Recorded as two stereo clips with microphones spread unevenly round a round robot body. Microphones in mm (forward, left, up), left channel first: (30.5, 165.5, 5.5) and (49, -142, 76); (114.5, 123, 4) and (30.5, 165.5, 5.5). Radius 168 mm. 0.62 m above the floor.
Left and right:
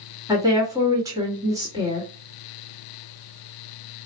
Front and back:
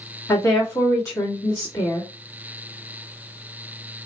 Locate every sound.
0.3 s a woman speaking: 5° left, 1.4 m